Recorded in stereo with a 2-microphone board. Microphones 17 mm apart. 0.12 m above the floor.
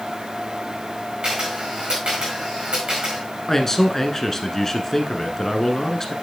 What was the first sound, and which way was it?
A camera shutter, 75° right (ahead or behind).